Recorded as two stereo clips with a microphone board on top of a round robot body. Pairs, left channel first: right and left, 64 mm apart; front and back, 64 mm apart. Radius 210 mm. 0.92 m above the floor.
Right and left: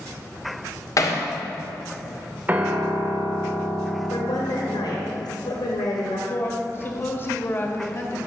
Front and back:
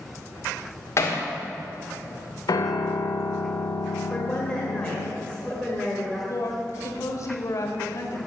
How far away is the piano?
About 0.6 m.